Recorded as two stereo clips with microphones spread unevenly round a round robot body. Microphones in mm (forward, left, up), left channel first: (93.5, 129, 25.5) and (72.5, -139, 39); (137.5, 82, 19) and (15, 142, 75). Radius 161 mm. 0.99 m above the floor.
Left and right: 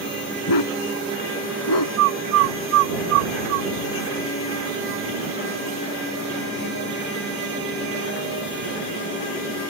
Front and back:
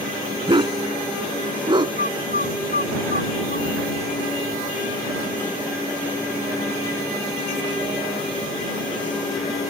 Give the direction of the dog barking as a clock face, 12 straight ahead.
8 o'clock.